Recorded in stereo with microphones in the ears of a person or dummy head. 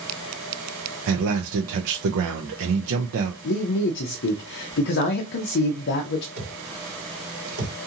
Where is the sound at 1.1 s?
75° right (ahead or behind), 0.6 m.